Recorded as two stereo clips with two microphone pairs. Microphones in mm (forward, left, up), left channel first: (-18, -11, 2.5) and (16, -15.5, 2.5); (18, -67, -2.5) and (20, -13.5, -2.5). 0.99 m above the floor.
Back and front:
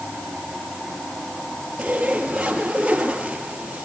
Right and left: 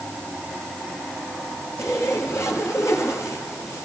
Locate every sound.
1.8 s a zipper: 70° right, 6 m